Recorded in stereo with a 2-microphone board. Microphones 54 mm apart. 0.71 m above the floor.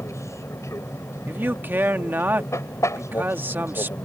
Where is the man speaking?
40° right (ahead or behind).